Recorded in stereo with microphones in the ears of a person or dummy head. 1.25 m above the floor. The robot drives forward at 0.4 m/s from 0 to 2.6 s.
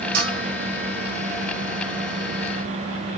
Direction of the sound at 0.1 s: 50° right (ahead or behind).